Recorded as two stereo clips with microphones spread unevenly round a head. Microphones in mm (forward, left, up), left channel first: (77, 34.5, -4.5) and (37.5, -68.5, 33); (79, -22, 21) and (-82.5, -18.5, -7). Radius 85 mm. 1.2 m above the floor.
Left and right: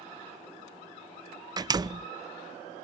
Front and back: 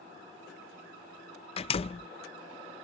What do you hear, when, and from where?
1.6 s a door slam: 55° right